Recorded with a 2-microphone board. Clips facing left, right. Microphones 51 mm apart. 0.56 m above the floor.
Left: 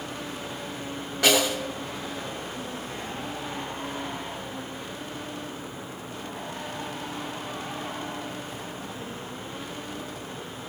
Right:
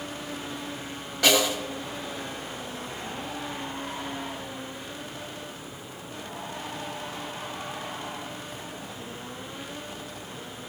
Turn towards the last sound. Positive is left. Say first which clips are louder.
# even
turn(degrees=15)  # may be behind; listen again after turning